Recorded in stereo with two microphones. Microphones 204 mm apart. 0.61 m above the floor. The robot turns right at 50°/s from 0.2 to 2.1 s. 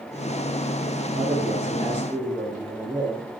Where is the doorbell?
I don't hear a doorbell.